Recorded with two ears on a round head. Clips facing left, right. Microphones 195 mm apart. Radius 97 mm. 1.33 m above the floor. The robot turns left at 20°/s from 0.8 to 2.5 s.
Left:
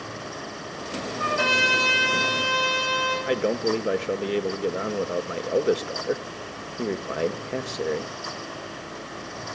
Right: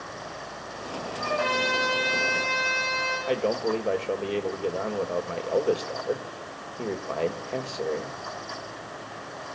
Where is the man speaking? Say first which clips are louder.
Left 1 dB; 20° left (ahead or behind), 1.5 m.